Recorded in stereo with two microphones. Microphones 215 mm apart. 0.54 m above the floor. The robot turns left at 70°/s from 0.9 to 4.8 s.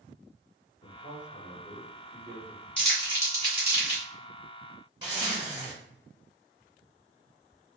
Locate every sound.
0.8 s a man speaking: 70° left, 1.1 m; by 2.6 s 50° right, 1.1 m
2.8 s crumpling: 5° left (ahead or behind), 1.4 m; by 4.0 s 35° right (ahead or behind), 1.4 m
5.0 s a zipper: 20° right (ahead or behind), 1.5 m